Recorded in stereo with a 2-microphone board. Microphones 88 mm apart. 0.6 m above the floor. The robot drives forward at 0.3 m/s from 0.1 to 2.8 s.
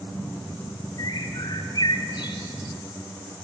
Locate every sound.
1.0 s a bird: 60° left (ahead or behind), 1.9 m; by 2.8 s 65° left (ahead or behind), 1.8 m